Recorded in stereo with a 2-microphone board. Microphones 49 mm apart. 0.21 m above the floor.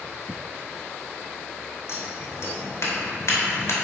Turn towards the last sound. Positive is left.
turn(degrees=70)  # may be behind; listen again after turning